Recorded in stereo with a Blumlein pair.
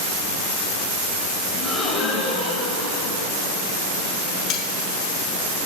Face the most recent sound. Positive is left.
turn(degrees=35)